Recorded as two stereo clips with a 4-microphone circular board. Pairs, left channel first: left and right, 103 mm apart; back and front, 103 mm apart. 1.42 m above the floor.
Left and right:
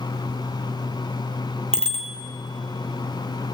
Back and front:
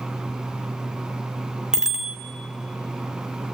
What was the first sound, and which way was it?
A bicycle bell, 85° right.